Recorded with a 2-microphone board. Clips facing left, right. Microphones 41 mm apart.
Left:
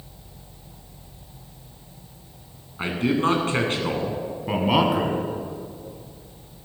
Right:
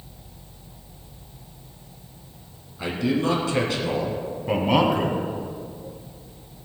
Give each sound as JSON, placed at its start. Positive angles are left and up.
{"t": 2.8, "sound": "a man speaking", "side_deg": 40, "distance_m": 2.5}
{"t": 4.5, "sound": "a man speaking", "side_deg": 5, "distance_m": 1.8}